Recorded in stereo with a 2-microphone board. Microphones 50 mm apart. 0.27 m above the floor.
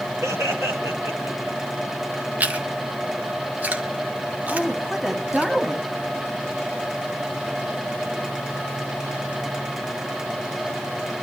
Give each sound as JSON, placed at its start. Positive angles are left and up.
{"t": 0.2, "sound": "laughter", "side_deg": -70, "distance_m": 4.5}
{"t": 2.4, "sound": "chewing", "side_deg": -30, "distance_m": 2.0}
{"t": 4.5, "sound": "a woman speaking", "side_deg": -5, "distance_m": 2.0}